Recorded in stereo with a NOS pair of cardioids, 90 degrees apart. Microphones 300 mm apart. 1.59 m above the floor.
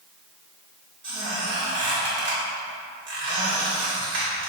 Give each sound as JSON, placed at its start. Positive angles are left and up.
{"t": 1.0, "sound": "a squeak", "azimuth_deg": -40, "distance_m": 1.8}